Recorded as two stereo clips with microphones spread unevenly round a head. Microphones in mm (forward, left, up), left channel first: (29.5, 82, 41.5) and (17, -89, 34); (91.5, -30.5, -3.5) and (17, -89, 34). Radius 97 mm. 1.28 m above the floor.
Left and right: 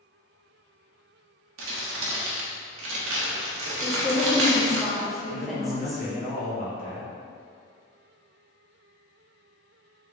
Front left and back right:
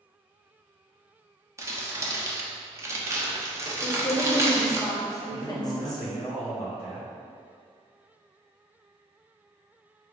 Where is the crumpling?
90° right, 0.9 m.